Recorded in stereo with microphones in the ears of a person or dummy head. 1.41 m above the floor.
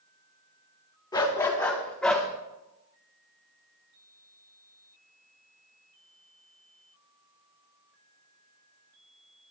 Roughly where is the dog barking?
Centre.